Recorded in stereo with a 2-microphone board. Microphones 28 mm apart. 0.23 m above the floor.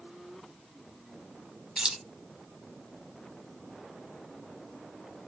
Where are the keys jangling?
35° right (ahead or behind), 1.1 m.